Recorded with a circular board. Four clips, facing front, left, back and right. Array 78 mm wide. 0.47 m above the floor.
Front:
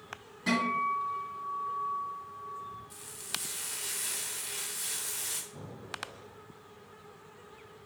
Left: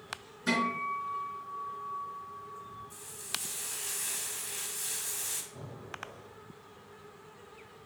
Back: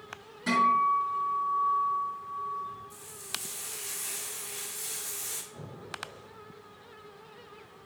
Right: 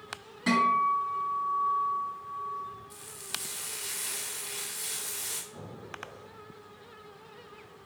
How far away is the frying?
About 1.6 m.